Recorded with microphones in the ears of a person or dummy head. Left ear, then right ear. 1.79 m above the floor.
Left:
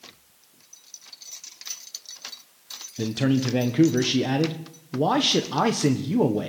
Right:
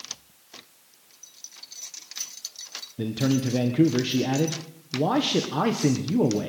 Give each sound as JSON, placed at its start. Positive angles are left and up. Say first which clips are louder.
{"t": 3.0, "sound": "a man speaking", "louder": "left 2 dB", "side_deg": 20, "distance_m": 1.6}